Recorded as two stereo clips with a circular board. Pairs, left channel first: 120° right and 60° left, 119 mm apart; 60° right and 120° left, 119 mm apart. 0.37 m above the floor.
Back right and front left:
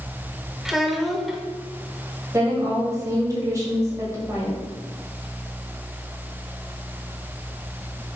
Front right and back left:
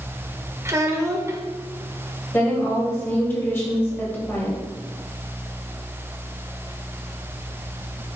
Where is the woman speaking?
5° left, 1.5 m.